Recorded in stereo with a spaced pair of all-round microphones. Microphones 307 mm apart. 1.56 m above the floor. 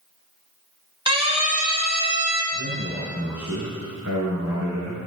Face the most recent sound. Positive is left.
turn(degrees=-65)  # may be behind; listen again after turning